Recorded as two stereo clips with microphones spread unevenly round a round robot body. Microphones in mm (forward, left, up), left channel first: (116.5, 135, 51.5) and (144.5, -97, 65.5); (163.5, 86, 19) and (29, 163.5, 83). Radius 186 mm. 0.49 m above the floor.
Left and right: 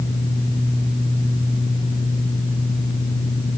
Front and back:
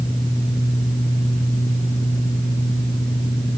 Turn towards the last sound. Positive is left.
No sound to turn to.